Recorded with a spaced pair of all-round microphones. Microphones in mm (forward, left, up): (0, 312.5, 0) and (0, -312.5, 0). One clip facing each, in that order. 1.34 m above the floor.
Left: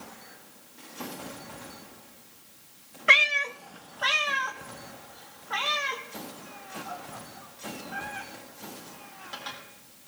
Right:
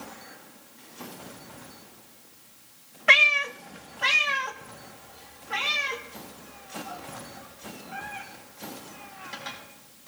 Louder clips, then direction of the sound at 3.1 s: Right 2 dB; 25° right (ahead or behind).